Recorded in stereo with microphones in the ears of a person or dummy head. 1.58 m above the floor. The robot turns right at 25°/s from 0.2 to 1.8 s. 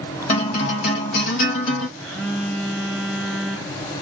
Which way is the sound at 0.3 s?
40° left.